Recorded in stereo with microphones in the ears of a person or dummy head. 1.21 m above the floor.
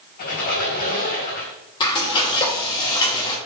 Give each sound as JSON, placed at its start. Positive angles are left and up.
{"t": 0.2, "sound": "a squeak", "side_deg": 50, "distance_m": 3.5}
{"t": 1.8, "sound": "frying", "side_deg": 25, "distance_m": 2.0}